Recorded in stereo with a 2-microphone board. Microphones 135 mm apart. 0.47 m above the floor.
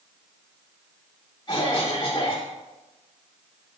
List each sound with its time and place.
1.5 s a cough: 35° left (ahead or behind), 1.0 m